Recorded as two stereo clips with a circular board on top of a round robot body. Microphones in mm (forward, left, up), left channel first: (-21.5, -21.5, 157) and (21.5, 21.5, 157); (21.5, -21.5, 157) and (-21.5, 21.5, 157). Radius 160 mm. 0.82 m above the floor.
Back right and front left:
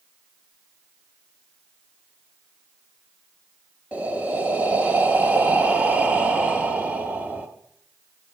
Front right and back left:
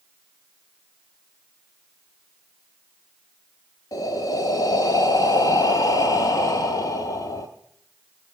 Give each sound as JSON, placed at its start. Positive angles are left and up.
{"t": 3.9, "sound": "breathing", "azimuth_deg": -25, "distance_m": 0.7}